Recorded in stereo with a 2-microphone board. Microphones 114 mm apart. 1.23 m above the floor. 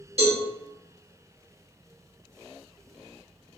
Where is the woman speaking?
No woman speaking in this recording.